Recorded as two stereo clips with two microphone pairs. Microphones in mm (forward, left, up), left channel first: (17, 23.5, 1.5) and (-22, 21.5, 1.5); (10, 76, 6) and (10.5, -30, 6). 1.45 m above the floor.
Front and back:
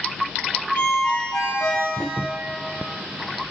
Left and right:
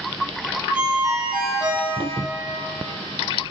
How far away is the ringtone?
About 3.5 m.